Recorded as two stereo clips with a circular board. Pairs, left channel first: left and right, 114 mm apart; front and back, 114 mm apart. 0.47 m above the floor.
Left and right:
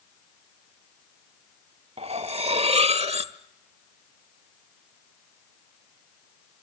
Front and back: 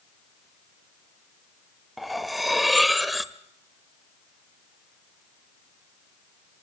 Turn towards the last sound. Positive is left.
turn(degrees=-90)